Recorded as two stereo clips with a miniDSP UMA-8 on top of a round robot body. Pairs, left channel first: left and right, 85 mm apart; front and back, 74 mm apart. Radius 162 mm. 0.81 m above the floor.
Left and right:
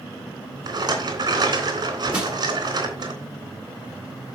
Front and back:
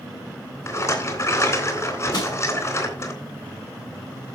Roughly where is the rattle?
Ahead right.